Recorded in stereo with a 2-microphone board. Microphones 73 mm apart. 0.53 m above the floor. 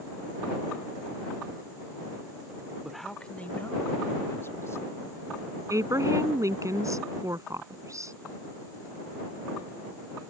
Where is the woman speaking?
45° right (ahead or behind).